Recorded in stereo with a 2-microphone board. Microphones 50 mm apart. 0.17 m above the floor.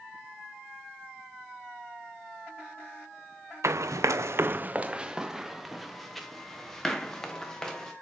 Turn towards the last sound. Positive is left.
turn(degrees=10)  # may be behind; listen again after turning